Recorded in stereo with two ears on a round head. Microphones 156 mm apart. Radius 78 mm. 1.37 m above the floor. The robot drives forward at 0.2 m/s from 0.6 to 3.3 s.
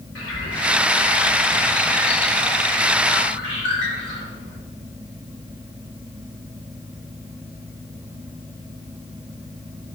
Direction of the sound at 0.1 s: 80° left.